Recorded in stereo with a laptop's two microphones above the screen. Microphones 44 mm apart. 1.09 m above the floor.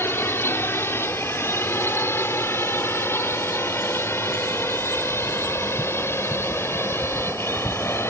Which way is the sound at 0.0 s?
70° left (ahead or behind).